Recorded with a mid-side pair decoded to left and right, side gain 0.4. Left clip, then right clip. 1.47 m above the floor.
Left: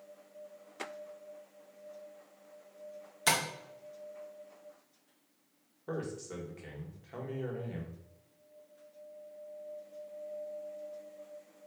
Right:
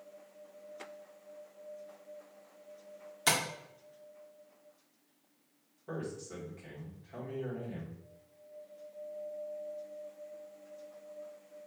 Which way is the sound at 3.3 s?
Straight ahead.